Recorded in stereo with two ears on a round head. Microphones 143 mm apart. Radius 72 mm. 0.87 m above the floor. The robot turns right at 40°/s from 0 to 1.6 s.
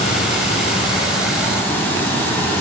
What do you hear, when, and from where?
0.0 s running water: 95° left, 0.9 m; by 2.6 s 160° left, 0.9 m